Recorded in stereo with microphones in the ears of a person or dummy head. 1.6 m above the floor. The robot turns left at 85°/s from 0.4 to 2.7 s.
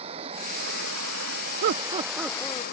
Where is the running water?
35° right; by 2.7 s 130° left.